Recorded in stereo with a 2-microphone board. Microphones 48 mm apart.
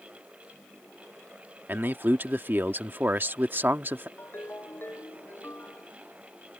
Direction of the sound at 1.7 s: 45° right (ahead or behind).